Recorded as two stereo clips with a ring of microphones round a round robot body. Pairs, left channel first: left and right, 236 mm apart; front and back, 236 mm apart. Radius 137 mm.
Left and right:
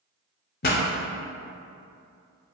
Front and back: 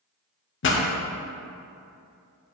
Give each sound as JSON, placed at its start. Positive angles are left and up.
{"t": 0.6, "sound": "a pop", "azimuth_deg": 40, "distance_m": 0.9}